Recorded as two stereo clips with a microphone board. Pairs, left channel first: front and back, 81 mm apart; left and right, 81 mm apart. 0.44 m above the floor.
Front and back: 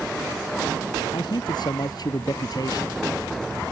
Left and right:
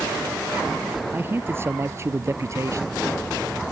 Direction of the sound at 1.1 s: 25° right.